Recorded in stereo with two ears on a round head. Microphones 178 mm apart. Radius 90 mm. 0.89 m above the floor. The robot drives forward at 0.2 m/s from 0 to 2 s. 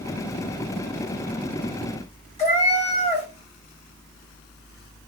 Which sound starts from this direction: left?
A cat meowing, at 2.4 s.